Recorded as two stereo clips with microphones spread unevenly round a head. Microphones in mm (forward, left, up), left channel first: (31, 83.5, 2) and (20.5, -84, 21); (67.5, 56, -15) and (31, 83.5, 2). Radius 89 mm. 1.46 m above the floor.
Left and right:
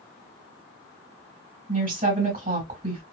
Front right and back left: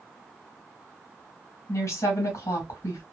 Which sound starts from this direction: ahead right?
A woman speaking, at 1.7 s.